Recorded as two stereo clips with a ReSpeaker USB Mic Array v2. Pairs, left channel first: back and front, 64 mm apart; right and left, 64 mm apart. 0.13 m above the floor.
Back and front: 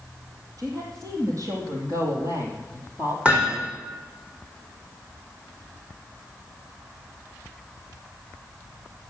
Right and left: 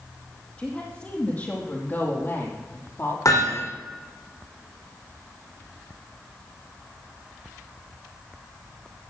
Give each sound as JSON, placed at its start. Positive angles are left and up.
{"t": 0.6, "sound": "a woman speaking", "azimuth_deg": -20, "distance_m": 4.5}
{"t": 3.2, "sound": "hammering", "azimuth_deg": -70, "distance_m": 5.0}